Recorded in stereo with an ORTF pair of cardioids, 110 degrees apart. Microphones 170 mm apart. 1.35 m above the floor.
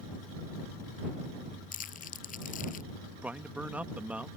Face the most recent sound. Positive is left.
turn(degrees=-10)